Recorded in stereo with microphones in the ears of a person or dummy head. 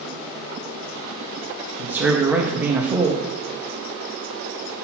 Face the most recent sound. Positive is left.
turn(degrees=-10)  # may be behind; listen again after turning